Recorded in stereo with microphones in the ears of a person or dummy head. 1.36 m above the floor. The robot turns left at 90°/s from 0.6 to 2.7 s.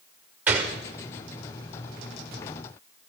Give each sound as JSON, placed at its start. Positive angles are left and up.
{"t": 0.5, "sound": "a gunshot", "side_deg": -10, "distance_m": 1.5}